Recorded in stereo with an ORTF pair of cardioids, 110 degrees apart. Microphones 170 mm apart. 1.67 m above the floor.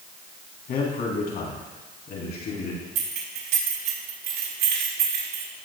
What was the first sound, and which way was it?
A man speaking, 55° left.